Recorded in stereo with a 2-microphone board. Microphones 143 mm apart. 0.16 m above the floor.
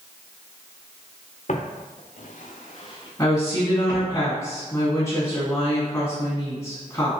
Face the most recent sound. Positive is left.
turn(degrees=20)  # may be behind; listen again after turning